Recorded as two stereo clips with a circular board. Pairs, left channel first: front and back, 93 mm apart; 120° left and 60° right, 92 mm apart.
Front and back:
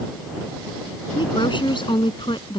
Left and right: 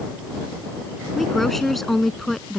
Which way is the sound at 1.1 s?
30° left.